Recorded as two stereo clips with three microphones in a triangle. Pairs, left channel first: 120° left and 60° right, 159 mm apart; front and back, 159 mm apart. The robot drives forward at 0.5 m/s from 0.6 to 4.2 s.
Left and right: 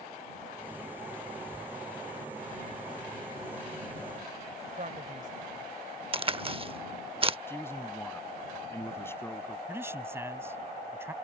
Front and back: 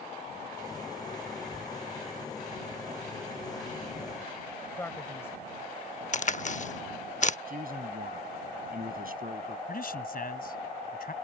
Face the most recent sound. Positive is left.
turn(degrees=15)